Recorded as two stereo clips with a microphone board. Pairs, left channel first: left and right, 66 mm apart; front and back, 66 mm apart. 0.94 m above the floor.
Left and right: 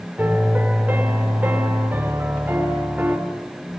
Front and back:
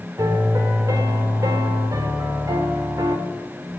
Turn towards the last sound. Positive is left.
turn(degrees=-155)